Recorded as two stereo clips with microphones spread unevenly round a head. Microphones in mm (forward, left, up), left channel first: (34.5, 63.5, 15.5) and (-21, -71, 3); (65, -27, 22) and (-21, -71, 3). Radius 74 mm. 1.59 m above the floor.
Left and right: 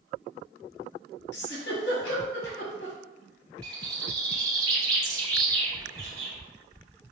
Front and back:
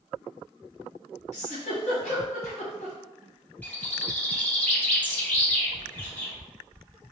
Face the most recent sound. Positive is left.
turn(degrees=-45)